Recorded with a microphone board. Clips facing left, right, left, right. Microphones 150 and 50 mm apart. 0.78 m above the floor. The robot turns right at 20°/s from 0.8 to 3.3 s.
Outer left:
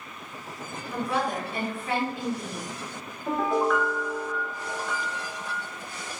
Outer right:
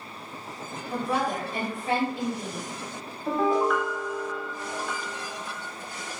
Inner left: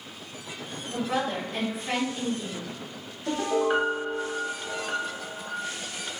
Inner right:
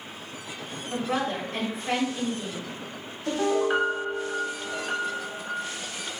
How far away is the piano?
About 0.7 m.